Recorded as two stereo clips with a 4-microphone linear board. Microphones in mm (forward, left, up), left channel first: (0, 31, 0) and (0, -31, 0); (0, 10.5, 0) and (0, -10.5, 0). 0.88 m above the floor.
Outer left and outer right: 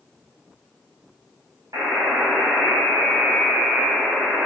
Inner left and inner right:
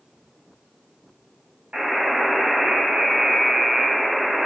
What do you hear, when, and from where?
1.7 s a buzzer: 80° right, 3 m